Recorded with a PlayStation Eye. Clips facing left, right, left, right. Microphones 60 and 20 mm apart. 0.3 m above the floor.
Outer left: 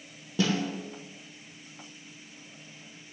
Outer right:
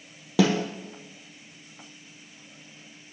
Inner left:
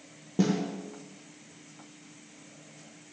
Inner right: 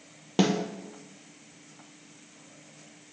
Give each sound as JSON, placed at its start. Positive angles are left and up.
{"t": 0.4, "sound": "a snare drum", "side_deg": -80, "distance_m": 2.5}